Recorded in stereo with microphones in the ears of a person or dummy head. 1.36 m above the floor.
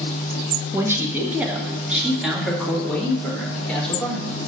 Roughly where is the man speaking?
Centre.